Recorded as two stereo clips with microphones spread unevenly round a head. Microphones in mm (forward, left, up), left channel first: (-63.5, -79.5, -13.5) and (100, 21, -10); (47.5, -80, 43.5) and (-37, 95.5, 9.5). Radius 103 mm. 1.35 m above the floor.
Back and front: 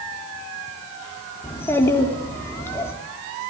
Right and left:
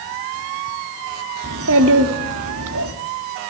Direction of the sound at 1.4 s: 130° left.